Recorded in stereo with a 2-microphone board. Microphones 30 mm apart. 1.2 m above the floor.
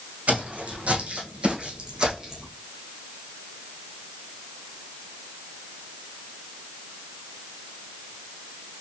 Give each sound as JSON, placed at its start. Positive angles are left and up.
{"t": 0.3, "sound": "footsteps", "side_deg": -65, "distance_m": 3.0}